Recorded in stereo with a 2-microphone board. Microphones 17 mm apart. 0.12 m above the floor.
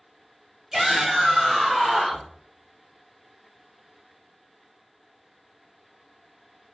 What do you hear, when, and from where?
0.7 s a shout: 30° right (ahead or behind), 1.5 m; by 2.3 s 25° right (ahead or behind), 1.2 m